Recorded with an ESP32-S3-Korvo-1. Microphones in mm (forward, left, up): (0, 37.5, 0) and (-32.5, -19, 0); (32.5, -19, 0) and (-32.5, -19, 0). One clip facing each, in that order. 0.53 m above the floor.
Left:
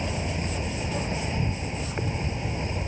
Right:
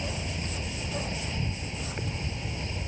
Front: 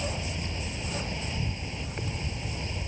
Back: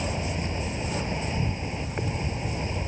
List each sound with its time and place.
0.0 s an insect: 120° left